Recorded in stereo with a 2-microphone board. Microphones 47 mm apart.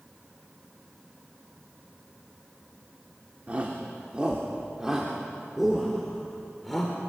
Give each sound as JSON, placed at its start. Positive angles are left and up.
{"t": 3.5, "sound": "a shout", "side_deg": -30, "distance_m": 2.5}